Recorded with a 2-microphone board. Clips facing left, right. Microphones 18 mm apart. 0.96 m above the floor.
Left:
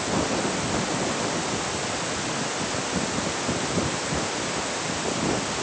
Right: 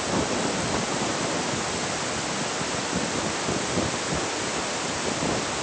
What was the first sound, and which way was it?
Only background noise.